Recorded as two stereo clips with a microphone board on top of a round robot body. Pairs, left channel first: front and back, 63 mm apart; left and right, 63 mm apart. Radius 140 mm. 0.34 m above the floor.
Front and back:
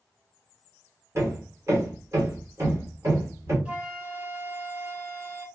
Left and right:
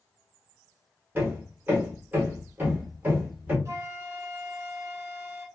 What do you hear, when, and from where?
1.1 s hammering: 150° right, 1.6 m
3.6 s a flute: 115° right, 2 m